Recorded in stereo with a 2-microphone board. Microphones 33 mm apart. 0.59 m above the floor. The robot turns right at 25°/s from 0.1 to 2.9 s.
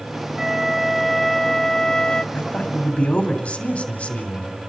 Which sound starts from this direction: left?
A man speaking, at 2.3 s.